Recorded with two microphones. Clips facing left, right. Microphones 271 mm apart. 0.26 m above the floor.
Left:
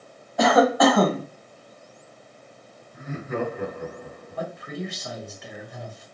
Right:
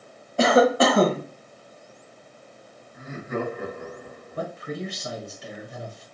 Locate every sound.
0.4 s a cough: 30° right (ahead or behind), 1.1 m
2.9 s laughter: 5° left (ahead or behind), 2.5 m
4.4 s a man speaking: 35° right (ahead or behind), 2 m